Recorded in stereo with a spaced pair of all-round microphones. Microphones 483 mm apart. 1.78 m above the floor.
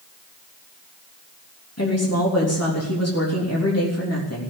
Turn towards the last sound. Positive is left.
turn(degrees=30)  # may be behind; listen again after turning